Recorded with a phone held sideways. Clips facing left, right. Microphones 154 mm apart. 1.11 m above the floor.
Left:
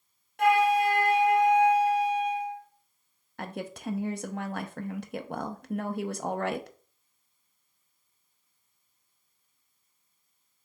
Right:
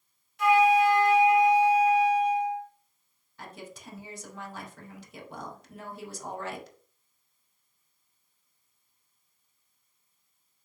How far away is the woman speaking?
About 0.6 m.